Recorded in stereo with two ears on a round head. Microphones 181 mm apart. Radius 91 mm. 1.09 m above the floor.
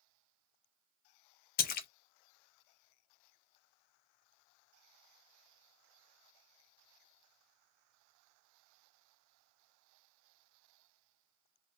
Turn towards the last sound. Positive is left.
turn(degrees=45)  # may be behind; listen again after turning